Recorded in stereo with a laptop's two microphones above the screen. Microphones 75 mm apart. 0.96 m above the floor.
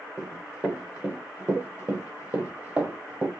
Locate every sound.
0.2 s running footsteps: 15° right (ahead or behind), 1.4 m; by 3.3 s 20° right (ahead or behind), 1.5 m